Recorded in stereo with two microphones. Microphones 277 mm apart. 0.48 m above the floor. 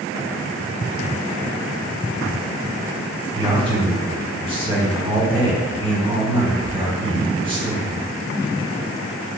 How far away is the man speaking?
About 1.3 m.